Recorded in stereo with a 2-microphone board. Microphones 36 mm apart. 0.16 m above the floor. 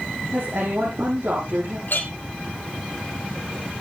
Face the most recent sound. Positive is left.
turn(degrees=65)  # may be behind; listen again after turning